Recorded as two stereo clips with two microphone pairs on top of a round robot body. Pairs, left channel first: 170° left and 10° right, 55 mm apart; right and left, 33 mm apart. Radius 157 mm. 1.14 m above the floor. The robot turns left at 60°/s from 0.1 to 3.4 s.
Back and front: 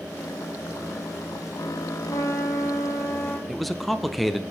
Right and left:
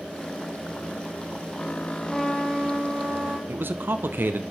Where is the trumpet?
170° right, 2 m; by 3.4 s 110° left, 2 m.